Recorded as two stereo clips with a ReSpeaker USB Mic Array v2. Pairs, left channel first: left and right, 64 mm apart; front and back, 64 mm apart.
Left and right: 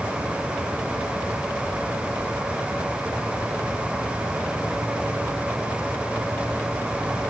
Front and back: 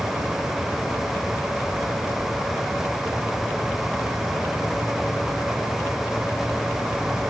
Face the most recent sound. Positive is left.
No sound to turn to.